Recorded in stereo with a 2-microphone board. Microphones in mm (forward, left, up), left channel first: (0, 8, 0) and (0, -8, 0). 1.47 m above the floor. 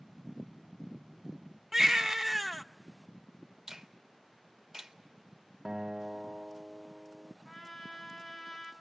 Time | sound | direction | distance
1.7 | a baby crying | 30° right (ahead or behind) | 0.9 m
3.7 | a finger snap | 50° right (ahead or behind) | 1.8 m
5.7 | a guitar | 50° right (ahead or behind) | 0.8 m
7.5 | a trumpet | 25° left (ahead or behind) | 6 m